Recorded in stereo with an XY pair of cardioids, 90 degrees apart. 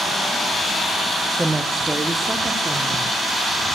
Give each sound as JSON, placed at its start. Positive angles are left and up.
{"t": 1.4, "sound": "a woman speaking", "azimuth_deg": -10, "distance_m": 0.8}